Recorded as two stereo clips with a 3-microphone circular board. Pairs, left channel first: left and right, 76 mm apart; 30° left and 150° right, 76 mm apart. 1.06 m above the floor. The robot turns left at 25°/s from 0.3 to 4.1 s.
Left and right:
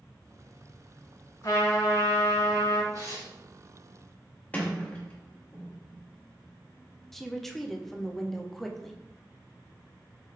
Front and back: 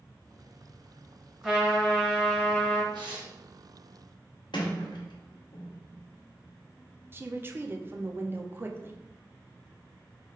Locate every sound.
1.4 s a trumpet: 130° left, 2 m; by 2.8 s 95° left, 2 m
2.9 s tearing paper: 135° right, 1.1 m; by 3.3 s 145° right, 1.1 m
4.5 s a sliding door: 20° left, 0.9 m
7.1 s a woman speaking: 175° left, 0.5 m